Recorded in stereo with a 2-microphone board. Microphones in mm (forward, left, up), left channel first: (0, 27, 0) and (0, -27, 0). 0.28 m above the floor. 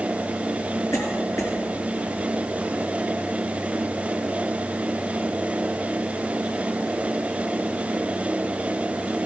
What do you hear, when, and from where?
0.9 s a cough: 65° left (ahead or behind), 4 m